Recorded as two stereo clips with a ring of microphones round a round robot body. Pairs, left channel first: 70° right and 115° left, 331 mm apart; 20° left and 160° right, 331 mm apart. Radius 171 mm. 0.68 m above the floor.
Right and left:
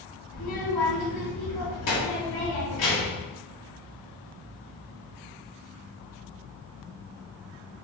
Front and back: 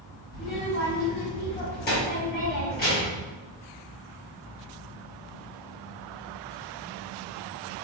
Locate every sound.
0.3 s a child speaking: 40° right, 1.7 m